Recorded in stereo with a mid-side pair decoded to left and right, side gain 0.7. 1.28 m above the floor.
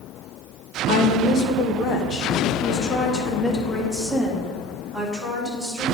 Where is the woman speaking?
70° left, 1.3 m; by 5.9 s 5° right, 3 m.